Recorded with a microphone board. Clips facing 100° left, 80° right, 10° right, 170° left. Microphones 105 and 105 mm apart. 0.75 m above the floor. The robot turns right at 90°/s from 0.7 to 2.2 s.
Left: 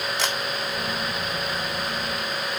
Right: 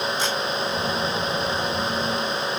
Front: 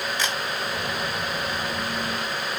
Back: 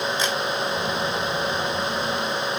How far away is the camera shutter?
About 3 m.